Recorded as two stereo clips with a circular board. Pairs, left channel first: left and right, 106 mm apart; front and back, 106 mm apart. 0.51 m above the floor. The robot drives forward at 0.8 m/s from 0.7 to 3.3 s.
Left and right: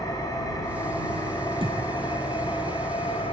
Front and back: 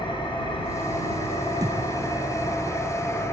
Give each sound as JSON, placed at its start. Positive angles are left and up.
{"t": 0.0, "sound": "an engine running", "azimuth_deg": 40, "distance_m": 4.5}
{"t": 1.6, "sound": "a thud", "azimuth_deg": -125, "distance_m": 2.5}